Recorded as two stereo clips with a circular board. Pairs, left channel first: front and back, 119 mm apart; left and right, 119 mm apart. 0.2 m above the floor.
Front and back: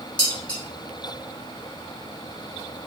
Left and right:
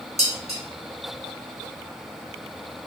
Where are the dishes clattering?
80° right, 2 m.